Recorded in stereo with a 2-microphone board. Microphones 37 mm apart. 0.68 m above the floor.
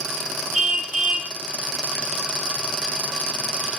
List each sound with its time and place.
0.5 s a car horn: 10° right (ahead or behind), 9.5 m